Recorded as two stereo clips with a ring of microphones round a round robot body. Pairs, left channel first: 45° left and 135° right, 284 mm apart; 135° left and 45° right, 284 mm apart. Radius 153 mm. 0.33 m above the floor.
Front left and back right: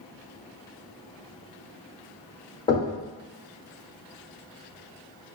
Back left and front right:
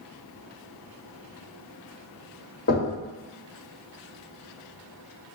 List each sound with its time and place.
2.7 s knocking: 105° left, 1.2 m